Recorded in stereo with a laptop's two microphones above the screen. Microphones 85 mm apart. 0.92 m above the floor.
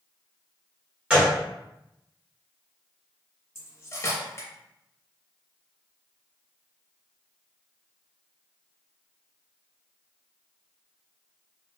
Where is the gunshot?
15° right (ahead or behind), 1.0 m.